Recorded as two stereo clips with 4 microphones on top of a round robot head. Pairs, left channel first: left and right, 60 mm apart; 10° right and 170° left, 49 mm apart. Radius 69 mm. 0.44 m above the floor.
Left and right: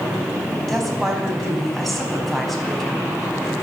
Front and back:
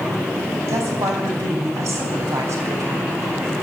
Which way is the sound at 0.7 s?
175° left.